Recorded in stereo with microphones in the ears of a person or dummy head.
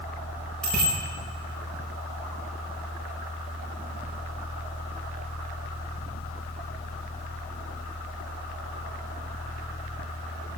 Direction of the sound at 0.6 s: 5° left (ahead or behind).